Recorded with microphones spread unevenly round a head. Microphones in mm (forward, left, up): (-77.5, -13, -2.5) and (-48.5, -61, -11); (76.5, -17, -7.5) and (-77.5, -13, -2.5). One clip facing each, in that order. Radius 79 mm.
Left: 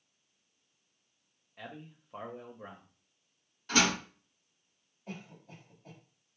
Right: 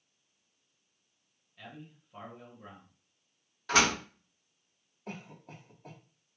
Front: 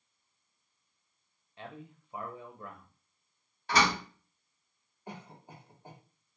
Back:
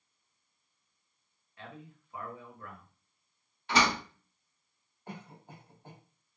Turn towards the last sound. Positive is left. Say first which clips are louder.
# right 1 dB, even
turn(degrees=-80)